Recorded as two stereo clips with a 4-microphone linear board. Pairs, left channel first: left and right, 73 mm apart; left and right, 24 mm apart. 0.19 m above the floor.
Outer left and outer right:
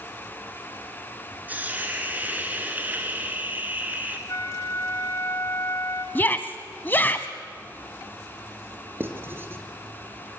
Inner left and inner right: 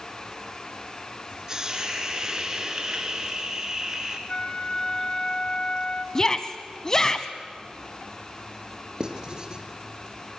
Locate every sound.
1.5 s a hiss: 20° right (ahead or behind), 3 m
4.3 s a flute: 45° left (ahead or behind), 2.5 m
6.2 s a shout: 25° left (ahead or behind), 1.1 m
9.0 s writing: 30° right (ahead or behind), 3 m